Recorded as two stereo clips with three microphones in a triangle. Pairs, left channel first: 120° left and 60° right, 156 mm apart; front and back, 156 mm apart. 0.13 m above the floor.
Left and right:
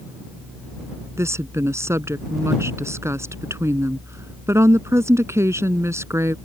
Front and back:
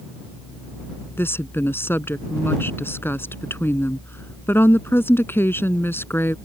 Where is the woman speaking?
40° right.